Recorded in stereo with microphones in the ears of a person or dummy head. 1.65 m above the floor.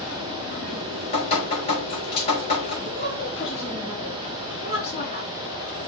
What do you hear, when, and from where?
0.7 s dripping: 30° left (ahead or behind), 5 m
2.9 s a woman speaking: 35° left (ahead or behind), 2 m